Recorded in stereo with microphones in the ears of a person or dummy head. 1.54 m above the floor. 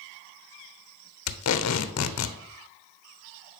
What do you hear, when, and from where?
1.3 s tape being pulled: 75° left (ahead or behind), 0.8 m